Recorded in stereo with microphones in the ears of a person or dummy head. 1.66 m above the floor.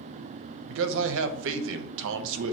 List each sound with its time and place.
0.7 s a man speaking: 65° right (ahead or behind), 0.5 m